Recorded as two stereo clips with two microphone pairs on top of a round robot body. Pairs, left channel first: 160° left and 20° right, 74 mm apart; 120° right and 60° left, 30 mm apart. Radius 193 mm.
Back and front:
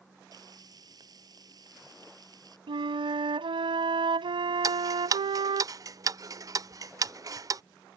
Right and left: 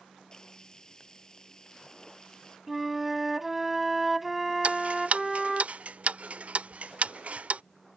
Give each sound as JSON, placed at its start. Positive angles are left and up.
{"t": 0.3, "sound": "frying", "azimuth_deg": -50}
{"t": 2.7, "sound": "a flute", "azimuth_deg": -25}
{"t": 4.6, "sound": "ticking", "azimuth_deg": 20}